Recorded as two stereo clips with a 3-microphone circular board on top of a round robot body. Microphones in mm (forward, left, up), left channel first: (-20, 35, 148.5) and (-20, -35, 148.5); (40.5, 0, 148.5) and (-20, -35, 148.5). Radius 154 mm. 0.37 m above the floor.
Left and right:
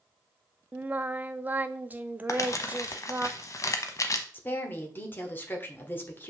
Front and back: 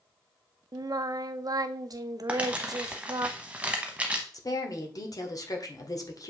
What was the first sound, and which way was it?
Singing, 155° right.